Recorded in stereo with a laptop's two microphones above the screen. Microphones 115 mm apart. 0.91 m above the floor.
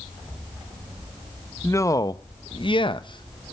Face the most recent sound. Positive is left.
turn(degrees=35)  # may be behind; listen again after turning